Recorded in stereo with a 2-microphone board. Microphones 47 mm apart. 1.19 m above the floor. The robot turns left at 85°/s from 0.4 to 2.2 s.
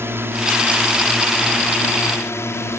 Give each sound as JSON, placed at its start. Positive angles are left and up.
{"t": 0.0, "sound": "a drone", "azimuth_deg": -115}